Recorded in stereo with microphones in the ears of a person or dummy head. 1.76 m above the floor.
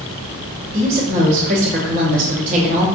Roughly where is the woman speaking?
Right.